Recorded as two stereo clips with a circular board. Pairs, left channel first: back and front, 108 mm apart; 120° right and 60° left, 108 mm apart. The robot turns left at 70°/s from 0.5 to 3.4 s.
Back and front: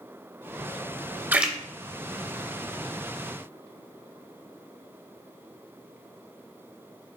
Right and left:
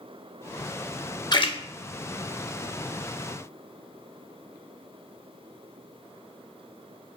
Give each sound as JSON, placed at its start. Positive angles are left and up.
{"t": 1.3, "sound": "a splash", "azimuth_deg": -70, "distance_m": 0.5}